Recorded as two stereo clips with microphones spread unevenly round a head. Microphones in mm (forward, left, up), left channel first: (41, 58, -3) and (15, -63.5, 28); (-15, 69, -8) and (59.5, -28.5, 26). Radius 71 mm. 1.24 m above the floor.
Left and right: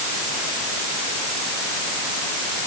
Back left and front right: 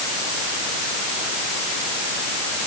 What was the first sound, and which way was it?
Only background noise.